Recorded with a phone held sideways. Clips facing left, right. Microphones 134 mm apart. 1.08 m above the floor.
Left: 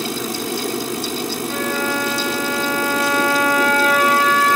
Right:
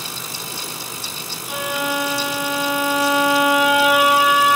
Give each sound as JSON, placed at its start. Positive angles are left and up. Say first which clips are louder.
{"t": 0.0, "sound": "a fan", "louder": "left 11 dB", "side_deg": 70}
{"t": 1.5, "sound": "a violin", "louder": "right 1 dB", "side_deg": -10}